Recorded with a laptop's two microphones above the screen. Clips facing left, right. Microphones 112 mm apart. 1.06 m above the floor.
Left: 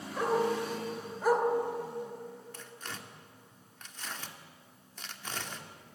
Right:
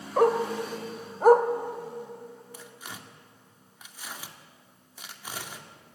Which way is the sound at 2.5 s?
10° right (ahead or behind).